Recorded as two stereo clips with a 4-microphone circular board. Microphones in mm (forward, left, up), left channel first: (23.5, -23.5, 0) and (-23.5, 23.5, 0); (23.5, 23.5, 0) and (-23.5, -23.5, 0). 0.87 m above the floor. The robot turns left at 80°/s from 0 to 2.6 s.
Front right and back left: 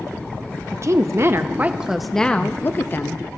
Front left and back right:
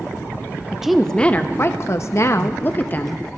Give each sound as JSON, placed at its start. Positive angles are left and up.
{"t": 0.7, "sound": "a woman speaking", "azimuth_deg": 150, "distance_m": 0.7}